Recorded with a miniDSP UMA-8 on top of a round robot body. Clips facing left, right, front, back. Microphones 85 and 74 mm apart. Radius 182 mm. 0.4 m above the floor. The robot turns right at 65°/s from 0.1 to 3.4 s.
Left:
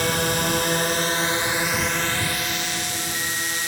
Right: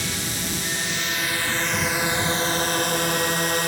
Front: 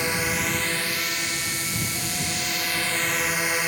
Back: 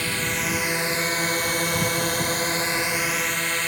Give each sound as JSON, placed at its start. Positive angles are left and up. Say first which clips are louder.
{"t": 0.0, "sound": "a drone", "louder": "left 8 dB, front 1 dB", "azimuth_deg": 70}